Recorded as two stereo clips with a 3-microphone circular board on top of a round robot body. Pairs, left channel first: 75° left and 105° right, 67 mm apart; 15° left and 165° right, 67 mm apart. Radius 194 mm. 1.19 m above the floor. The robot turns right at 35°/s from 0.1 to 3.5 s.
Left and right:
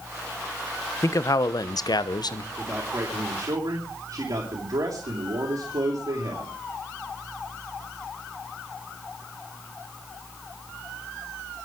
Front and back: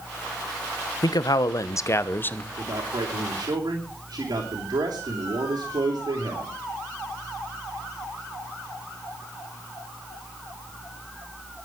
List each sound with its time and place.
1.0 s a man speaking: 30° left, 1.3 m; by 2.5 s 85° left, 1.3 m
2.6 s a man speaking: 170° right, 3.5 m; by 6.5 s 135° right, 3.5 m